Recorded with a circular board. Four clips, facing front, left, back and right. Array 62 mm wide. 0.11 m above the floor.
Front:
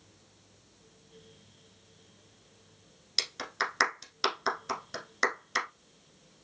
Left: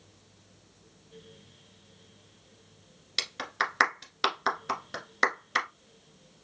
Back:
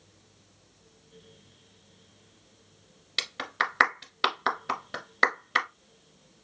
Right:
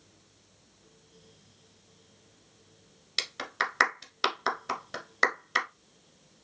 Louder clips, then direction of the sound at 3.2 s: Left 1 dB, back 4 dB; 175° left.